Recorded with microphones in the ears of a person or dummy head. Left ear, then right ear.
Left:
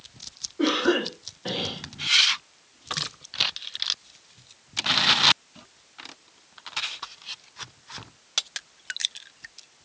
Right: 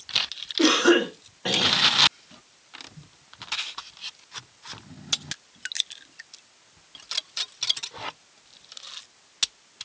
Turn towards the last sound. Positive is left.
turn(degrees=-85)